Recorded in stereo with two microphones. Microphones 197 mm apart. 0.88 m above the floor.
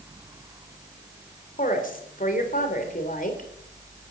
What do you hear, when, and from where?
1.6 s a woman speaking: 45° left (ahead or behind), 3 m